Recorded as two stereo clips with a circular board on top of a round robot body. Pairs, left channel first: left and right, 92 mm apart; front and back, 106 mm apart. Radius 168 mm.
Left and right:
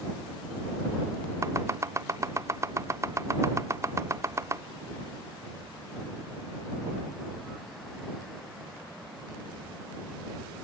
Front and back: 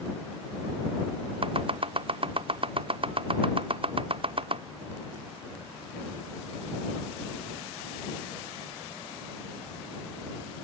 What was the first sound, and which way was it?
Chopping, 150° right.